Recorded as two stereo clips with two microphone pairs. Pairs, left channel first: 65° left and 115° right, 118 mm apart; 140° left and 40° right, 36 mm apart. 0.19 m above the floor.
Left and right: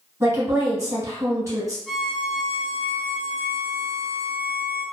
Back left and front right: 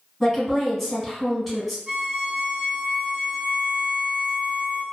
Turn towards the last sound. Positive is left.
turn(degrees=-20)